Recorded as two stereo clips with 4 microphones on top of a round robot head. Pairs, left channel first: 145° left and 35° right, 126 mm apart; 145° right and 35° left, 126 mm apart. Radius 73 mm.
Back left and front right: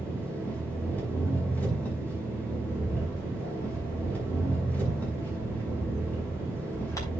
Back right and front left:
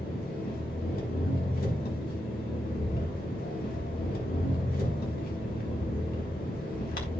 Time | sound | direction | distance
0.0 | an engine running | 135° right | 5 m
2.7 | a bird | 150° right | 4 m